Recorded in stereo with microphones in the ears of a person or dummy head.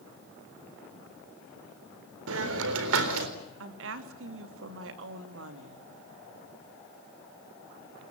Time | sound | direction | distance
2.3 | a hiss | 80° right | 3.5 m
3.6 | a woman speaking | 75° right (ahead or behind) | 3 m